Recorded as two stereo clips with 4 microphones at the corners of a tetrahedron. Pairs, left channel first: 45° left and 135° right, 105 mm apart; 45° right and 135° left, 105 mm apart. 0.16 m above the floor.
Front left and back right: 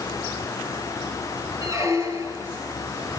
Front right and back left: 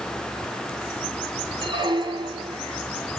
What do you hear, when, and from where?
1.6 s a squeak: 170° left, 3 m